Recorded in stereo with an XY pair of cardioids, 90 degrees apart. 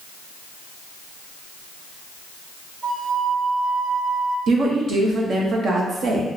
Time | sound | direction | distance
2.8 | a flute | 15° right | 1.5 m
4.5 | a woman speaking | 60° right | 0.9 m